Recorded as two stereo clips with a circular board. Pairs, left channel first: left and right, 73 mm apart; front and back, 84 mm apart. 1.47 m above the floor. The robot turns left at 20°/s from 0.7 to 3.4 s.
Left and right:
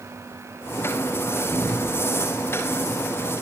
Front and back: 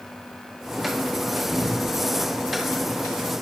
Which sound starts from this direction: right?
A cupboard door, at 1.5 s.